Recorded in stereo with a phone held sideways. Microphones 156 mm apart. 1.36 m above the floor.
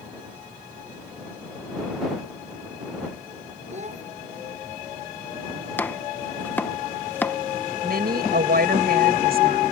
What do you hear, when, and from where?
3.7 s a child speaking: 45° right (ahead or behind)
5.8 s chopping: 10° left (ahead or behind)
7.8 s a woman speaking: 75° right (ahead or behind)